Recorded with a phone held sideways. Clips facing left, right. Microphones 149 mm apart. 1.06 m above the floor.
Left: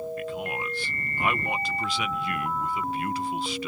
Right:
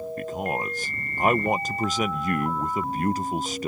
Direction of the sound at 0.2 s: 45° right (ahead or behind).